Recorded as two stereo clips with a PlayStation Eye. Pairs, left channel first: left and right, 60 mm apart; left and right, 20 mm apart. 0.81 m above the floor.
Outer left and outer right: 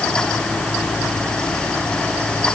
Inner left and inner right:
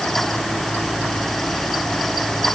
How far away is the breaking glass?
I don't hear breaking glass.